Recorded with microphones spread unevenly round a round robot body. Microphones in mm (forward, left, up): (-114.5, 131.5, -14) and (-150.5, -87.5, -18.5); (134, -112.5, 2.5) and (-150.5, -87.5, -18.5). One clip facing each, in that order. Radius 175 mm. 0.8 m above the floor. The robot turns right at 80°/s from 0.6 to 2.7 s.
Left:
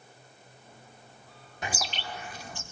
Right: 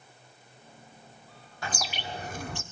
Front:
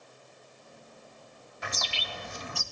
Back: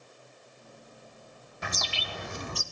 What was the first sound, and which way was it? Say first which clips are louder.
A bird: even, back 1 dB; 155° left.